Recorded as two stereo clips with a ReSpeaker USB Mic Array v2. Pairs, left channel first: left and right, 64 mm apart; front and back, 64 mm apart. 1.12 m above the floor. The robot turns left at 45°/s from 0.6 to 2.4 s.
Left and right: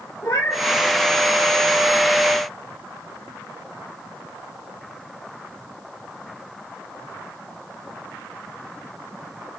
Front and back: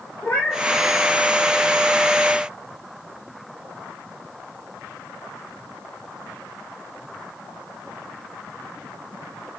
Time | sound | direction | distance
0.2 | a cat meowing | 60° left | 1.1 m